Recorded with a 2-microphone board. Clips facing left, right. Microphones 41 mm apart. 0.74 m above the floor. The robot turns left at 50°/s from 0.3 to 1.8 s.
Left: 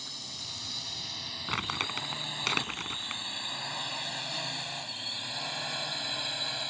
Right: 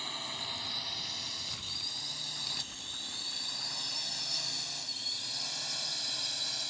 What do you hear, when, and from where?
0.0 s a drone: 35° right (ahead or behind); by 6.7 s 30° left (ahead or behind)
1.5 s crumpling: 70° left (ahead or behind); by 3.2 s 85° left